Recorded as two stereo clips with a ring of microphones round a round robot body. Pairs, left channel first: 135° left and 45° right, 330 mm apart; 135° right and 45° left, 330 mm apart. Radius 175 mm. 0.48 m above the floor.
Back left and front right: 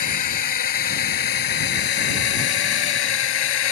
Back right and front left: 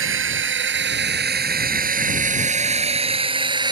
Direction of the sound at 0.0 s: 100° left.